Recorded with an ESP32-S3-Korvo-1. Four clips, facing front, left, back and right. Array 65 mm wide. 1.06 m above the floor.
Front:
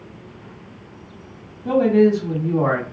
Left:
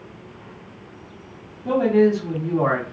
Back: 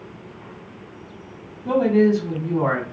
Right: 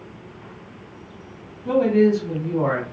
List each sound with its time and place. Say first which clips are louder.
1.6 s a man speaking: even, front 2 dB; 45° left, 1.5 m